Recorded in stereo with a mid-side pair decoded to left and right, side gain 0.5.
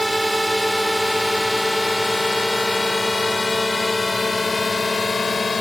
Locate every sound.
0.0 s a drone: 5° right; by 5.6 s 25° left